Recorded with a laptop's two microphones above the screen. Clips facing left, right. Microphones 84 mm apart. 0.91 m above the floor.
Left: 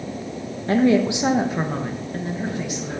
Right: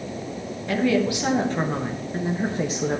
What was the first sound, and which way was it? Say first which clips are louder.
A woman speaking: left 4 dB; 35° left (ahead or behind).